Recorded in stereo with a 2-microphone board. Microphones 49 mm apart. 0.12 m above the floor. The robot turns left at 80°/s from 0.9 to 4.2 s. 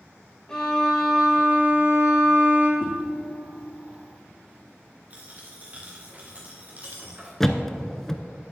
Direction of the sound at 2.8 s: 45° left (ahead or behind).